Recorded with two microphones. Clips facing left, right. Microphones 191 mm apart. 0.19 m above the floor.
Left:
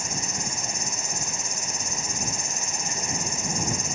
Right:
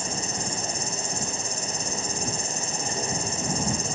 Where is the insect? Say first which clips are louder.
Right 2 dB; 30° right (ahead or behind).